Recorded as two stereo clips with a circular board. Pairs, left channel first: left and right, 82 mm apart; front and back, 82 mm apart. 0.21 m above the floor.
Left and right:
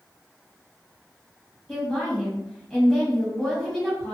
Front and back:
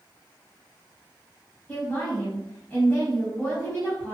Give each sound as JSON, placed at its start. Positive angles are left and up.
{"t": 1.7, "sound": "a woman speaking", "azimuth_deg": 15, "distance_m": 1.3}